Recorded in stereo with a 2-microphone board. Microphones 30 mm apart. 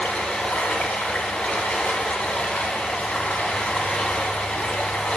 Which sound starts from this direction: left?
Running water, at 0.0 s.